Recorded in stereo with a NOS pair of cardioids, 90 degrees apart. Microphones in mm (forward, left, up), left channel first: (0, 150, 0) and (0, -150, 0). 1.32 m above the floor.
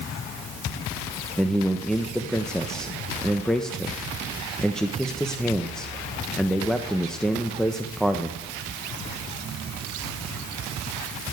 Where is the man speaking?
Straight ahead, 1.0 m.